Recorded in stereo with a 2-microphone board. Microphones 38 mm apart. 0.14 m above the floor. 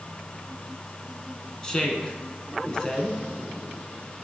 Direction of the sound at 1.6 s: 20° left (ahead or behind).